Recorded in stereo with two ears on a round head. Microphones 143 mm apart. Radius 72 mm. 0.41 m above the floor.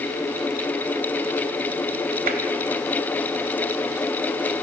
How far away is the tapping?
About 2 m.